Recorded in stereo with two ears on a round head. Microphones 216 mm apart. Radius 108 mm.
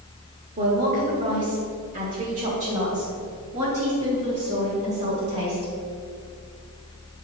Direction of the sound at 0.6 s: 35° right (ahead or behind).